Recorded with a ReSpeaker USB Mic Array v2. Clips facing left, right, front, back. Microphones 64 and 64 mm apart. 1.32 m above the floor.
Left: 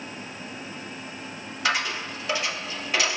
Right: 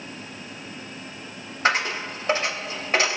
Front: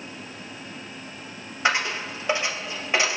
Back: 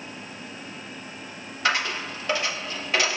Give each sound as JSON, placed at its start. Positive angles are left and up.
{"t": 1.6, "sound": "a dropped coin", "azimuth_deg": -60, "distance_m": 1.5}